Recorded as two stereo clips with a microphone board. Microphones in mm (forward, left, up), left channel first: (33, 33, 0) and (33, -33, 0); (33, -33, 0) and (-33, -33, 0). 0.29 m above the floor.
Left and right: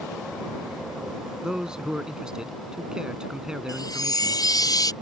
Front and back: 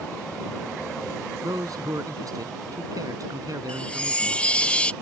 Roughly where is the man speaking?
Behind.